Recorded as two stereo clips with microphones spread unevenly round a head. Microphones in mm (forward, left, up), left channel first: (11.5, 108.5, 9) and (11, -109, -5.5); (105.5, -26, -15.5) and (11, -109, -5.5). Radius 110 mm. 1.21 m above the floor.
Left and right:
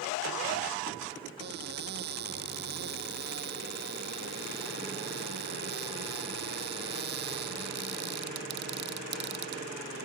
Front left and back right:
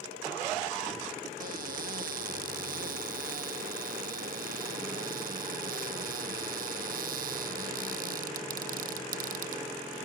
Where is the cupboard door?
140° right.